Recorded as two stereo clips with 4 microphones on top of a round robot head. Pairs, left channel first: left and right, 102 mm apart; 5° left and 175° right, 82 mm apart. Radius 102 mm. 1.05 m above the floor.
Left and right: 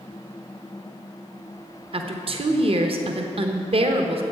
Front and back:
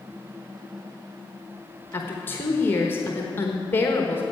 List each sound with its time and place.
1.9 s a woman speaking: 60° right, 1.0 m